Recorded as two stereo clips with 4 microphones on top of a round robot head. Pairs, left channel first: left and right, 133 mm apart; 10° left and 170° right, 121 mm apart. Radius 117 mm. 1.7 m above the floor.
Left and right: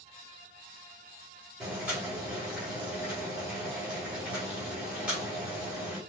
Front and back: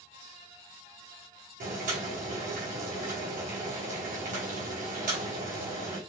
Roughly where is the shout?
No shout in this recording.